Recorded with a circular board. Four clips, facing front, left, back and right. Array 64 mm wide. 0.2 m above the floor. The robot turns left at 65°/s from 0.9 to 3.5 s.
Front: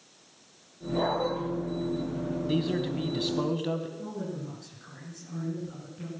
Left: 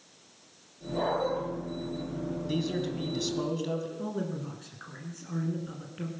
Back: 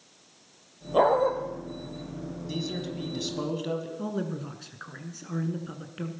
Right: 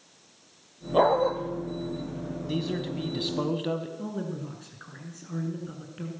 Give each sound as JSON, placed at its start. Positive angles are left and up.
{"t": 0.9, "sound": "a dog barking", "azimuth_deg": -130, "distance_m": 2.5}
{"t": 2.5, "sound": "a man speaking", "azimuth_deg": -10, "distance_m": 1.3}
{"t": 4.0, "sound": "a man speaking", "azimuth_deg": 175, "distance_m": 2.5}